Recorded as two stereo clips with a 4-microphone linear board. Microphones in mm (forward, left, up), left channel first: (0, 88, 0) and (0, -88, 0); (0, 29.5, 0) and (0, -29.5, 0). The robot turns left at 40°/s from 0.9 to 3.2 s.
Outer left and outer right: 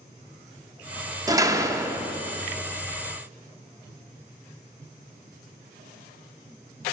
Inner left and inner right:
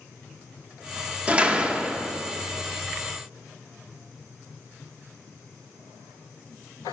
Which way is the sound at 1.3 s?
20° right (ahead or behind).